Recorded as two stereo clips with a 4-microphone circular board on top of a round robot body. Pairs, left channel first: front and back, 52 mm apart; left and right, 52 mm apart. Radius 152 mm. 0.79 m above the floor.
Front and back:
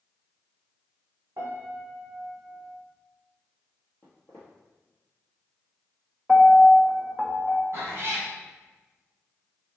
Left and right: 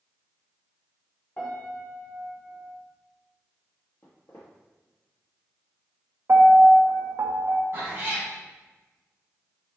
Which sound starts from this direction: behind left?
A piano, at 1.4 s.